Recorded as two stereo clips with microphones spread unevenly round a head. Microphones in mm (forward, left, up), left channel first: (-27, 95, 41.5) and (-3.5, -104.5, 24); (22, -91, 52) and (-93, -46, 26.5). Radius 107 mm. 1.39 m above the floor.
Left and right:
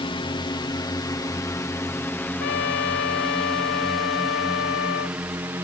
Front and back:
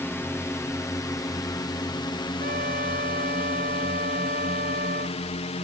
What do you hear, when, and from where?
0.0 s a drone: 55° left; by 5.6 s 10° right
2.4 s a trumpet: 115° left